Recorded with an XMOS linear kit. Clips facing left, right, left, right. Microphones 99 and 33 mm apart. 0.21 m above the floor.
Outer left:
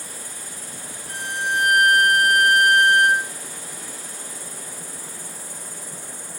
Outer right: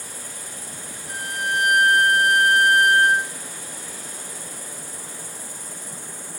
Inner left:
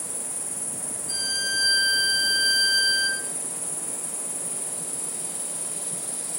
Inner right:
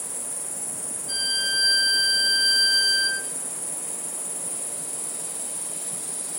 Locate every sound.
0.0 s an insect: 50° left (ahead or behind), 0.9 m
1.1 s a violin: 40° right (ahead or behind), 1.2 m